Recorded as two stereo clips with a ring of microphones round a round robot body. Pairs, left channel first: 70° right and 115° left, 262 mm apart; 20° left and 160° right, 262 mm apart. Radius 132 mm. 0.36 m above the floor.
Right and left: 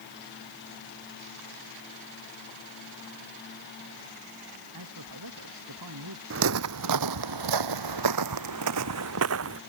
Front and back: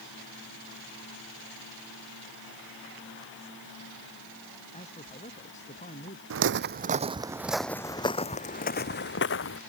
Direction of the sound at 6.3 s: 160° left.